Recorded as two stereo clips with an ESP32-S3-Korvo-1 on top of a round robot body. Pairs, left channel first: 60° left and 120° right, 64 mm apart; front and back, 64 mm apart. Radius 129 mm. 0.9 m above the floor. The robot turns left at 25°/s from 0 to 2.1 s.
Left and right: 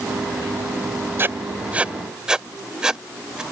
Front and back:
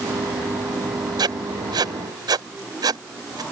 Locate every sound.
1.2 s writing: 175° right; by 3.4 s 160° left